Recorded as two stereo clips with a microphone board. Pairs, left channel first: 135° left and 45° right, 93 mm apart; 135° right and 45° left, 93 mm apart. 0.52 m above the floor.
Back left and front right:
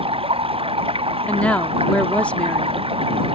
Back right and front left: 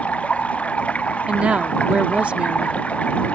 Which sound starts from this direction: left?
A woman speaking, at 1.3 s.